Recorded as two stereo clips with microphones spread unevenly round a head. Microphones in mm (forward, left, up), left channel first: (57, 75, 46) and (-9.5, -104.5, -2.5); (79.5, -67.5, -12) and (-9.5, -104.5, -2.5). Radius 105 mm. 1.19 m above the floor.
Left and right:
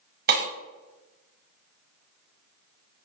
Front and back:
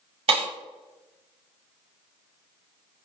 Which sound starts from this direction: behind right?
Breaking glass, at 0.3 s.